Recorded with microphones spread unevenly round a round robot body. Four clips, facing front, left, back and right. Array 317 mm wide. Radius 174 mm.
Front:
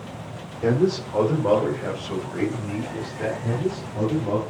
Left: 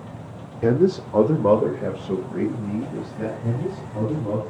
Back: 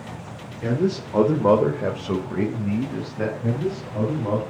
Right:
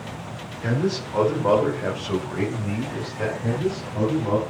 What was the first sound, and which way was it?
A man speaking, 85° left.